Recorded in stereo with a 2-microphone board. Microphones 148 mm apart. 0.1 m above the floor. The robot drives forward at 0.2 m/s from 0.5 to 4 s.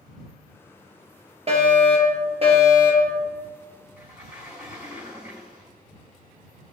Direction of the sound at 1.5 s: 45° right (ahead or behind).